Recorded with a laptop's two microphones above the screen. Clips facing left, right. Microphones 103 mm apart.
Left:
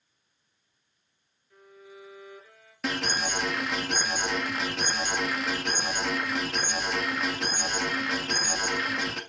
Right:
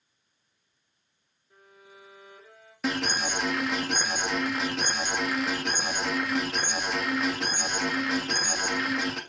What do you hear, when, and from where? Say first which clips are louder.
1.5 s a violin: left 4 dB; 25° right (ahead or behind), 4.5 m
2.8 s an alarm: right 1 dB; 5° right (ahead or behind), 1.6 m